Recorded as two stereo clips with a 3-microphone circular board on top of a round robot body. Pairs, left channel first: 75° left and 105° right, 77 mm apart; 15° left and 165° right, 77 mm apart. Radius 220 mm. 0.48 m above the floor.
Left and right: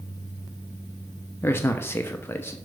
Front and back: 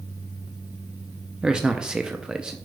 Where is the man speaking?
120° left, 0.8 m.